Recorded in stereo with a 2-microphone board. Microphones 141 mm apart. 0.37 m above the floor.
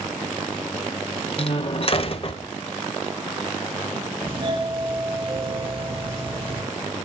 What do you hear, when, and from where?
1.4 s a door slam: 45° left (ahead or behind), 0.9 m
4.2 s a doorbell: 40° right (ahead or behind), 1.7 m